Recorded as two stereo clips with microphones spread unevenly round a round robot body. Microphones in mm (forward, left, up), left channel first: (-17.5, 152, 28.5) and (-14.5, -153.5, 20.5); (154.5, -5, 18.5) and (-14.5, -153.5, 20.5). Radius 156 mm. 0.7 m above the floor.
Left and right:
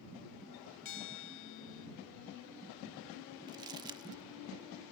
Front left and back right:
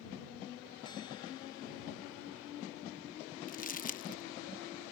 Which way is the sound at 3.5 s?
15° right.